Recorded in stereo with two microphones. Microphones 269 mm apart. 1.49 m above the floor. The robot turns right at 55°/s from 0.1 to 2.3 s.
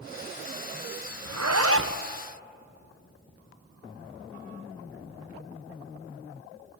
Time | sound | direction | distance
1.2 | a zipper | 80° right | 0.8 m